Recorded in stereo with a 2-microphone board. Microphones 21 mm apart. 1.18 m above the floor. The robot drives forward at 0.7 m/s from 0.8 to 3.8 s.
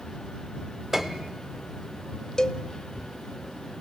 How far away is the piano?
About 1.5 m.